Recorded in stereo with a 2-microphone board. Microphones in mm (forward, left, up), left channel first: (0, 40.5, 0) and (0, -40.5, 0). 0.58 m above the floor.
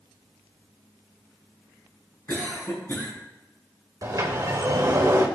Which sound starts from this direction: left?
A cough, at 2.3 s.